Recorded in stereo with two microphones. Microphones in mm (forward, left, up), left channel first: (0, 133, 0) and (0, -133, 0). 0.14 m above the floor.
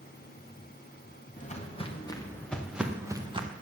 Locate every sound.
1.4 s footsteps: 30° left (ahead or behind), 2.5 m; by 3.5 s 25° right (ahead or behind), 2.0 m